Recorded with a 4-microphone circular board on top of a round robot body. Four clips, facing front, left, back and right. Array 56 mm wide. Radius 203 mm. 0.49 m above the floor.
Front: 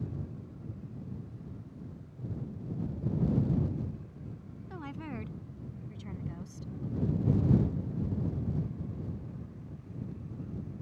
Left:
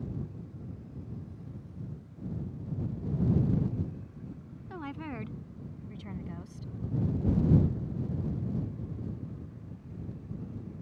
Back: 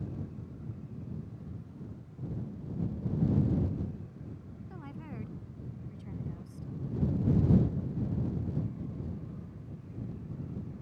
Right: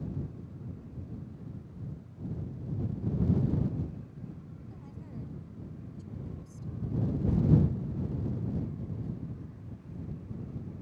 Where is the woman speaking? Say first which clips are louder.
Left 11 dB, front 5 dB; 70° left.